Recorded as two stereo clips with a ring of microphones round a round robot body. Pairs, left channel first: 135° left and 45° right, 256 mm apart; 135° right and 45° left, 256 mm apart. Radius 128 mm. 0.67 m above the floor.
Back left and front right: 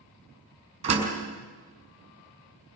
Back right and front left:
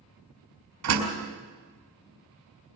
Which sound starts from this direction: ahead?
A door slam, at 0.8 s.